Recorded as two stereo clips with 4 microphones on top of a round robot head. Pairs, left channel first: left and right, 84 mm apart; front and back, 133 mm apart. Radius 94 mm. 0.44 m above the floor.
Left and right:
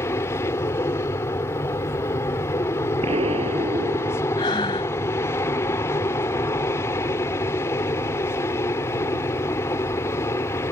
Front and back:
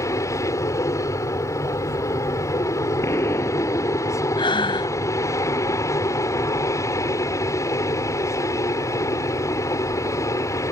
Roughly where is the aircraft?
Ahead left.